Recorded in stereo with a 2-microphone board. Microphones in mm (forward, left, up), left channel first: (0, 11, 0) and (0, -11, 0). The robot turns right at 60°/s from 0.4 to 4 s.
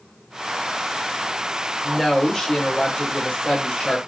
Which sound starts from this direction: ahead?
A woman speaking, at 1.8 s.